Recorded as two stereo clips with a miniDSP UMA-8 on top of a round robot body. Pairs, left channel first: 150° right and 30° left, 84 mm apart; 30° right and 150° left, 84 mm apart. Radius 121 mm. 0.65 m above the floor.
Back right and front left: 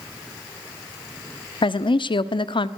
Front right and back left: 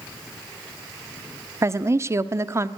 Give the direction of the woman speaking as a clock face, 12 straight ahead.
5 o'clock.